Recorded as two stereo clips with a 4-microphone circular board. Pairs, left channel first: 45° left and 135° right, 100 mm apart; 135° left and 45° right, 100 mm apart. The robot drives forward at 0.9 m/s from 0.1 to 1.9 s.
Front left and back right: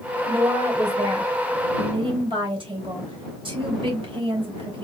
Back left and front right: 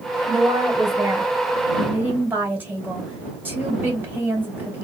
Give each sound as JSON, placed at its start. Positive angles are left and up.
{"t": 0.2, "sound": "a woman speaking", "azimuth_deg": -80, "distance_m": 2.5}